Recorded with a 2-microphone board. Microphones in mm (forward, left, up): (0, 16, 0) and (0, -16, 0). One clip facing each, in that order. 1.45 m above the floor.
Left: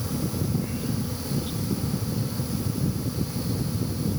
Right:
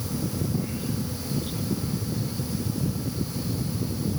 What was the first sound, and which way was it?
Only background noise.